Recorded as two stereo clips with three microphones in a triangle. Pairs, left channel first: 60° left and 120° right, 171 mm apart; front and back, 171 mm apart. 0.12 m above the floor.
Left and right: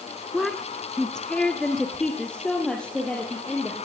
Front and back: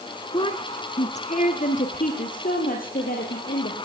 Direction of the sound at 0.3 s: 25° right.